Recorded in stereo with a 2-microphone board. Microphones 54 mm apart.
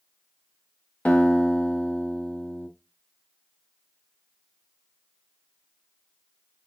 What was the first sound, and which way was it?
A guitar, 25° left (ahead or behind).